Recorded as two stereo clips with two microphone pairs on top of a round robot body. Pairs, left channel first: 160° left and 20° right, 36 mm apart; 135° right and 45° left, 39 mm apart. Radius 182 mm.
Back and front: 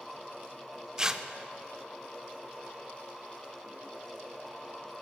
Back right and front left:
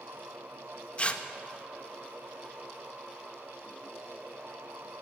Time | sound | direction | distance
1.0 | tearing paper | 95° right | 0.7 m